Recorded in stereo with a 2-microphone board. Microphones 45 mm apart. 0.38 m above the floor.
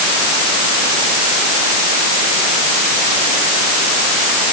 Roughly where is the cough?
I don't hear a cough.